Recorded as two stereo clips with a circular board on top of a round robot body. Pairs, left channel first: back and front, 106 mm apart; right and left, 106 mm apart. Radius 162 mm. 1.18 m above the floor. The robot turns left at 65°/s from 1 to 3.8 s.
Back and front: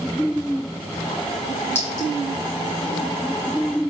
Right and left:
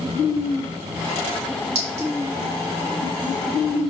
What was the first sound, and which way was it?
A clink, 115° left.